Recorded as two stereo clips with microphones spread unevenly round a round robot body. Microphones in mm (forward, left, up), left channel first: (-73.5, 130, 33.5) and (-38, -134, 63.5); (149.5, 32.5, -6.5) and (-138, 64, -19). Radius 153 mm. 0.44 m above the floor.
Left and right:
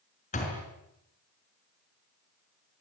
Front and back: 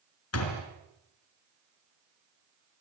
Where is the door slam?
30° left, 5 m.